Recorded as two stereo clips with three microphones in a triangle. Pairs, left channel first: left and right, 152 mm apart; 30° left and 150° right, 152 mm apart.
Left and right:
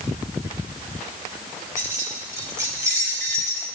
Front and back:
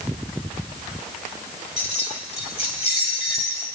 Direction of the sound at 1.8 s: 20° right.